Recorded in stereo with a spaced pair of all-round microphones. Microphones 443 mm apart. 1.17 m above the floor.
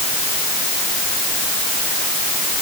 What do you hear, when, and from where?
Only background noise.